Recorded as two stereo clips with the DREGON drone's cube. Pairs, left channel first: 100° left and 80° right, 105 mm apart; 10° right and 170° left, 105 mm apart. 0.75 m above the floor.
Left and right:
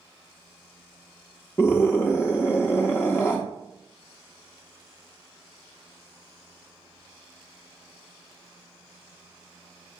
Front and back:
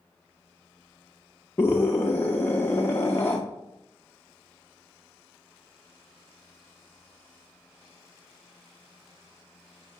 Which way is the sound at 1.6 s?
50° left.